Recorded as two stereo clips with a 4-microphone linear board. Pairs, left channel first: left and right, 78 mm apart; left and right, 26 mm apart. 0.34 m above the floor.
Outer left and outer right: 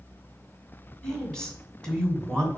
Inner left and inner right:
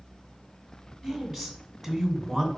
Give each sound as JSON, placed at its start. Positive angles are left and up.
{"t": 1.0, "sound": "a woman speaking", "side_deg": 10, "distance_m": 2.5}